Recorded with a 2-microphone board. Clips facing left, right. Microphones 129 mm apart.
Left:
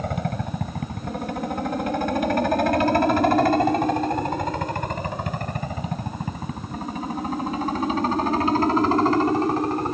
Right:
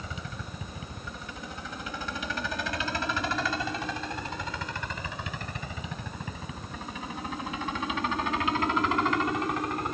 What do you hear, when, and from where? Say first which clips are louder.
0.0 s a helicopter: left 13 dB; 60° left (ahead or behind); by 9.9 s 35° left (ahead or behind)